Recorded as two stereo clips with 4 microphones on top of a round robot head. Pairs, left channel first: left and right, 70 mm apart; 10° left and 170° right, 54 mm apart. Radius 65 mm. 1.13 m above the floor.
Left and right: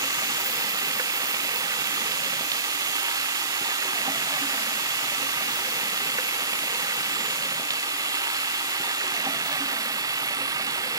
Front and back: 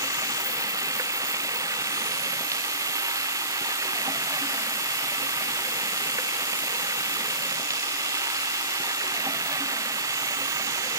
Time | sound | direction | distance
0.0 | running water | 135° right | ?